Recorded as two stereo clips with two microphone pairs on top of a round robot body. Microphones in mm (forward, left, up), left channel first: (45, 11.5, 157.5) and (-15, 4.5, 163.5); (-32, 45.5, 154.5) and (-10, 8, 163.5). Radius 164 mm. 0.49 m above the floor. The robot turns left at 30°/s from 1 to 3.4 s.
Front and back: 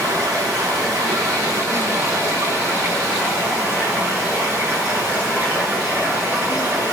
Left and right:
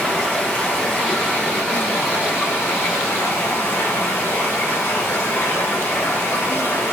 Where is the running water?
170° right, 6.5 m; by 6.9 s 120° left, 6.5 m.